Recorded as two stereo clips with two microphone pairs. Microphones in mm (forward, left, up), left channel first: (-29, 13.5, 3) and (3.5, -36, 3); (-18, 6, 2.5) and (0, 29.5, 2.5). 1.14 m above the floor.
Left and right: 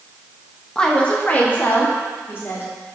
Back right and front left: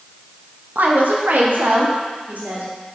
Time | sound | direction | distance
0.8 | a woman speaking | 45° left | 1.2 m